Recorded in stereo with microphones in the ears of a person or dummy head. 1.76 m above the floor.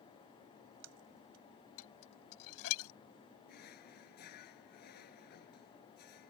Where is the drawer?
55° left (ahead or behind).